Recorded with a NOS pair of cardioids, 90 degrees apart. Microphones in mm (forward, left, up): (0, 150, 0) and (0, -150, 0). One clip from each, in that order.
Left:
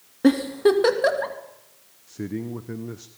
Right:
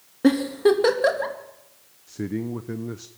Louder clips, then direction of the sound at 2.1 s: Right 2 dB; 10° right.